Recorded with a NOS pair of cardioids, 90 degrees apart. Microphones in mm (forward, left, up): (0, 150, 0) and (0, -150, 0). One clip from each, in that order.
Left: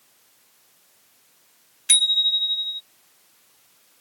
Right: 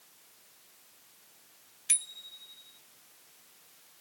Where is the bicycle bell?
50° left.